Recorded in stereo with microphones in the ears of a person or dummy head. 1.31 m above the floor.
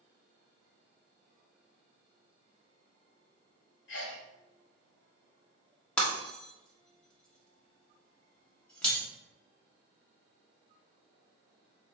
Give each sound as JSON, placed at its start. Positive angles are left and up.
{"t": 3.9, "sound": "a sneeze", "side_deg": 70, "distance_m": 1.7}
{"t": 6.0, "sound": "breaking glass", "side_deg": 5, "distance_m": 1.4}